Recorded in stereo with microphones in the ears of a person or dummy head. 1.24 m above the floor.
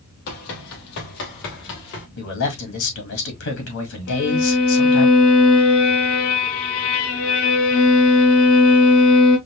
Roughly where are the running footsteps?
Left.